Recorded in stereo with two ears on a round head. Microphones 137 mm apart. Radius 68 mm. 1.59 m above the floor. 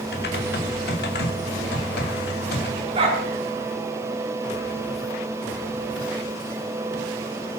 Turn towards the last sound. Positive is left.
turn(degrees=-35)  # may be behind; listen again after turning